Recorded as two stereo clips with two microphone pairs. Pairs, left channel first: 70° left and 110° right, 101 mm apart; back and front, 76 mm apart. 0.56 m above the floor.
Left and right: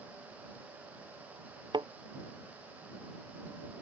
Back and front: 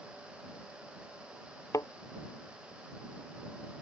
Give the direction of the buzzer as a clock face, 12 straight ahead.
I don't hear a buzzer.